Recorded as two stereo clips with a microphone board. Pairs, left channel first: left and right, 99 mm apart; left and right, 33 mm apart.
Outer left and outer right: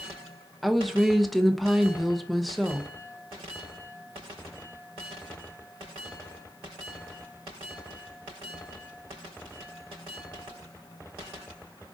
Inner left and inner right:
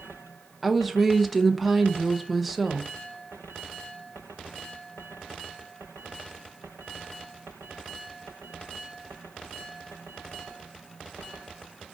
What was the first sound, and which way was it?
A woman speaking, centre (ahead or behind).